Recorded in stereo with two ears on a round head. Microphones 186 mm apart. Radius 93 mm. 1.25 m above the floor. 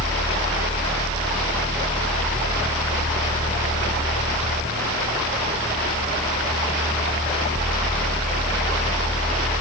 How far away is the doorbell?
No doorbell in this recording.